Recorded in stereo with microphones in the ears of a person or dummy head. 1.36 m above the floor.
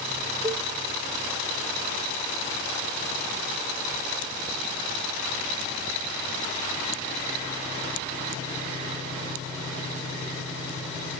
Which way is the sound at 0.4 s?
20° right (ahead or behind).